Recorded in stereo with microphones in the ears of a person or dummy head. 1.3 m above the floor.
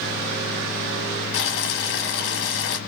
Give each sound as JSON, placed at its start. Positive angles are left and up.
{"t": 1.3, "sound": "boiling", "side_deg": 65, "distance_m": 1.1}